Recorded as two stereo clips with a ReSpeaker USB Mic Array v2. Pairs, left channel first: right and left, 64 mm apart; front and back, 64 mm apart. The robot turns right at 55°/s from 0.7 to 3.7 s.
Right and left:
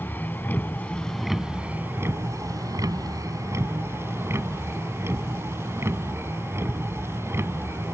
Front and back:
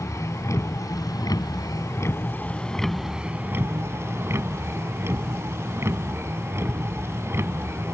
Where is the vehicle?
30° right; by 8.0 s 135° left.